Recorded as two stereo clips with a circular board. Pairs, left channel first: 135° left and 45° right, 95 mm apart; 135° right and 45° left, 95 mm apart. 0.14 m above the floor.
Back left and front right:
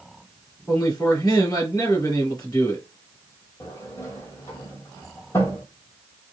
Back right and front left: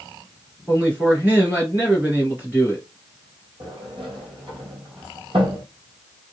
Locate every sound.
0.7 s a man speaking: 110° left, 2 m
3.6 s a sliding door: 70° left, 1.2 m